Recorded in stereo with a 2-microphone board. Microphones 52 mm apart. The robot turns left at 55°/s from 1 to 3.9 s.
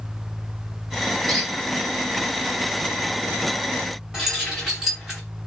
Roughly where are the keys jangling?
Centre.